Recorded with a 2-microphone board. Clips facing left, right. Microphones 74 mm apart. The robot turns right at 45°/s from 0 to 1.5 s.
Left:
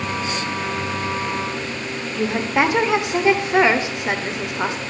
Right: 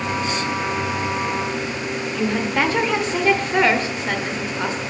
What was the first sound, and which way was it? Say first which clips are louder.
A woman speaking: left 2 dB; 15° left (ahead or behind).